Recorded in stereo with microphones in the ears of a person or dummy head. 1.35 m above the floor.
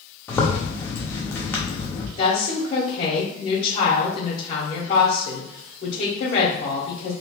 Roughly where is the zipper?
Centre.